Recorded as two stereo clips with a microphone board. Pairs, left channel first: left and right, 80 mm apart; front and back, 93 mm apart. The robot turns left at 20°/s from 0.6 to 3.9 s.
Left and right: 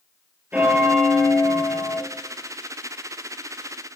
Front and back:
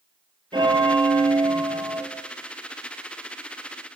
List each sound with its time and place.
0.5 s a bell: 160° right, 1.4 m; by 2.0 s 170° left, 1.4 m